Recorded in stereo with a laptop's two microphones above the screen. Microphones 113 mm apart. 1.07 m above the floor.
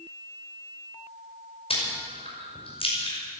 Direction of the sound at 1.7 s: 60° left (ahead or behind).